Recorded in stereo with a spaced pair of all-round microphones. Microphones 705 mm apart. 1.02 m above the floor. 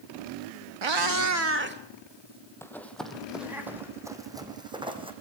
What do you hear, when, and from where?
0.8 s a cat meowing: 45° right (ahead or behind), 0.7 m; by 3.6 s 5° right (ahead or behind), 4 m
2.6 s running footsteps: 5° left (ahead or behind), 2 m; by 5.1 s 5° right (ahead or behind), 3.5 m